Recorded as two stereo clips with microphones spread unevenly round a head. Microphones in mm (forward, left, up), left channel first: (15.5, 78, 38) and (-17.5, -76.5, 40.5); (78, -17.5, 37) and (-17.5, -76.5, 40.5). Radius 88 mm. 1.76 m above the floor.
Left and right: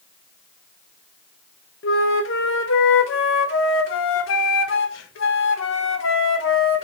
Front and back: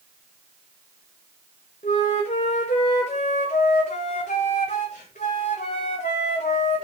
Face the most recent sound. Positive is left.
turn(degrees=85)